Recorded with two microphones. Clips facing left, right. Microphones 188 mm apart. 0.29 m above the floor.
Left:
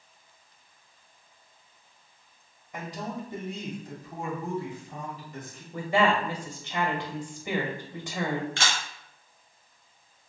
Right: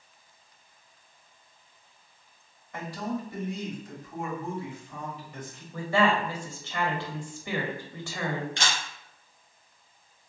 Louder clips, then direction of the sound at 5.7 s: Even; 20° left (ahead or behind).